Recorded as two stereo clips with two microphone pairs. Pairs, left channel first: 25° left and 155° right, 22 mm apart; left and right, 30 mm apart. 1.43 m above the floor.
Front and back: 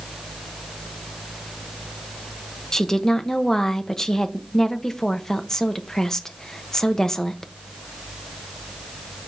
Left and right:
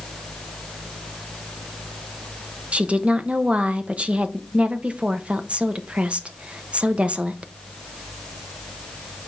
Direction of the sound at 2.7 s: 40° right.